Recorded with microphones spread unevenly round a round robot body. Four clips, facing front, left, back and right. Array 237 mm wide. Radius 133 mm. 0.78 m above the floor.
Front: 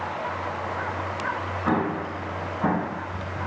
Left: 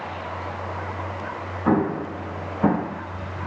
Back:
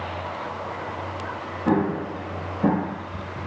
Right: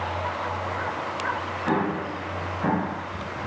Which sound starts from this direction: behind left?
An explosion, at 1.6 s.